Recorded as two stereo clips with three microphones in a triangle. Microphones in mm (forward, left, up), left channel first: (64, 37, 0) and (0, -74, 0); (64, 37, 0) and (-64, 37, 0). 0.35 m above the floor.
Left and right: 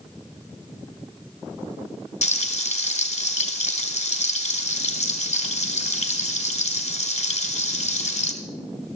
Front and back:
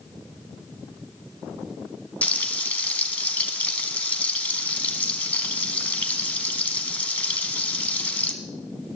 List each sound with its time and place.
2.2 s frying: 80° left, 1.4 m